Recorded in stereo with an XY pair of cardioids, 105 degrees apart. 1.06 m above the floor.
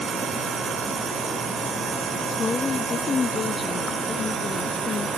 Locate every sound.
2.3 s a woman speaking: 40° left